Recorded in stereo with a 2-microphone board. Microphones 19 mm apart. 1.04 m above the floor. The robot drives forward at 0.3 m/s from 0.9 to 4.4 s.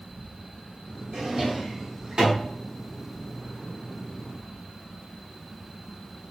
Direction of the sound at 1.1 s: 45° right (ahead or behind).